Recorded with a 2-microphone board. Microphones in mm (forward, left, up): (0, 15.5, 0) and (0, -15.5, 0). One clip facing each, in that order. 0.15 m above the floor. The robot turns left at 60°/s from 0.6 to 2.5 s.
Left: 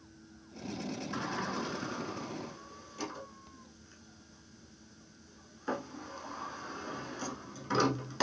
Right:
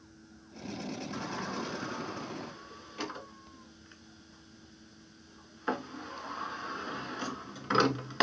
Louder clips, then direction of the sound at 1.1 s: Left 2 dB; 20° left (ahead or behind).